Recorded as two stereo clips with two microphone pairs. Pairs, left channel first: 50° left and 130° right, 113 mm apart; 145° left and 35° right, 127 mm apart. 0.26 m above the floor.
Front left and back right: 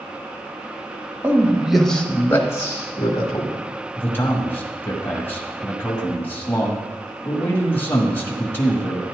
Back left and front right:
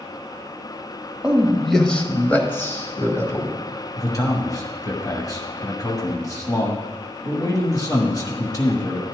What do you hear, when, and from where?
1.2 s a man speaking: 110° right, 1.0 m; by 3.5 s 85° left, 1.7 m
4.0 s a man speaking: 105° left, 1.3 m